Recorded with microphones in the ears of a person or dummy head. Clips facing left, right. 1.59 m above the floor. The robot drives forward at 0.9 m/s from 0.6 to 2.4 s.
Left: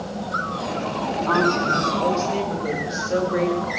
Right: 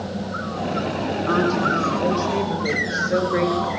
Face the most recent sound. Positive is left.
turn(degrees=0)  # may be behind; listen again after turning